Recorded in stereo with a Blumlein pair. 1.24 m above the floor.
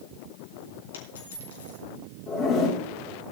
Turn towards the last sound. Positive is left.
turn(degrees=30)